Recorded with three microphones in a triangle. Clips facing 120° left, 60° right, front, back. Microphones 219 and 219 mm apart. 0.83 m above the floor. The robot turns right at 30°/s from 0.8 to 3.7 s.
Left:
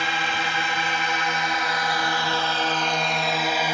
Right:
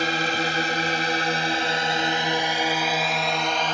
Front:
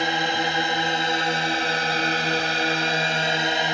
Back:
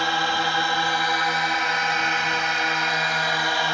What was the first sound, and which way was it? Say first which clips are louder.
A drone: right 4 dB, front 2 dB; 60° right.